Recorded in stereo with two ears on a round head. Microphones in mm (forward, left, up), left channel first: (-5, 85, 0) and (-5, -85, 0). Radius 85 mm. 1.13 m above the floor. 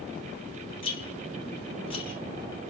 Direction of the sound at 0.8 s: 30° left (ahead or behind).